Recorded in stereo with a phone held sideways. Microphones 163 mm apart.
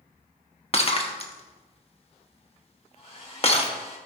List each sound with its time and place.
0.7 s breaking glass: 40° left (ahead or behind), 1.1 m
2.9 s a hair dryer: 40° left (ahead or behind), 3.5 m